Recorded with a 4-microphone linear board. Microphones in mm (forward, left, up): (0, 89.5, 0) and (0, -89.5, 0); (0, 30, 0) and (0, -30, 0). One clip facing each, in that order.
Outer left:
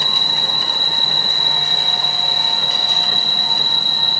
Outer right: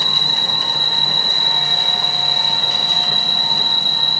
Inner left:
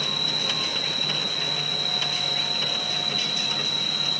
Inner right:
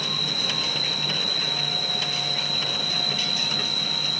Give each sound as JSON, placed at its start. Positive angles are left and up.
{"t": 0.0, "sound": "an insect", "side_deg": -50, "distance_m": 3.5}